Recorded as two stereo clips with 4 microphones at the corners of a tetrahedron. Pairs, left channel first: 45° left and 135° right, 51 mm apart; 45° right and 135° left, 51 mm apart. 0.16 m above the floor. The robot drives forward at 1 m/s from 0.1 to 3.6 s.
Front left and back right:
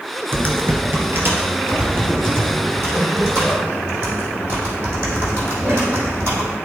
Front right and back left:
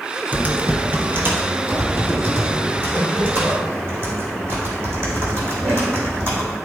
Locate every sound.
0.3 s typing on a keyboard: 175° right, 1.5 m; by 6.6 s straight behind, 4.5 m